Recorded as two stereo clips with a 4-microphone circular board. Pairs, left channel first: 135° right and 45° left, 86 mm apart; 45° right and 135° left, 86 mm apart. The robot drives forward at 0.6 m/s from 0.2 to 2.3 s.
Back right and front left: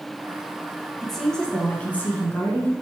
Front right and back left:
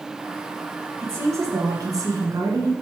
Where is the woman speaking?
135° left, 1.1 m; by 2.7 s 160° left, 1.5 m.